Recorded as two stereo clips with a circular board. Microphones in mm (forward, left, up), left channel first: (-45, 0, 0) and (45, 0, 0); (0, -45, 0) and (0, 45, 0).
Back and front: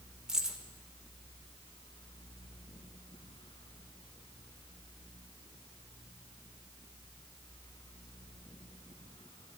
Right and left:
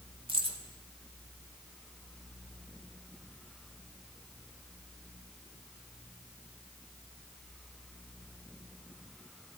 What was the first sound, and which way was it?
Keys jangling, 80° left.